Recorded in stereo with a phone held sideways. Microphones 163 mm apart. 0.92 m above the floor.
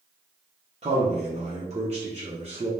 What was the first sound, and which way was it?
A man speaking, 40° right (ahead or behind).